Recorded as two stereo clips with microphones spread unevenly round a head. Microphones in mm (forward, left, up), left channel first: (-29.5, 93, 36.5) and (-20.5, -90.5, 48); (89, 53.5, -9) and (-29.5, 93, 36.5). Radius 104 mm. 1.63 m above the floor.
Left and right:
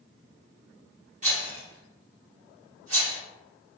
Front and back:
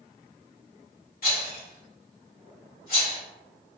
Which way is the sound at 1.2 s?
45° right.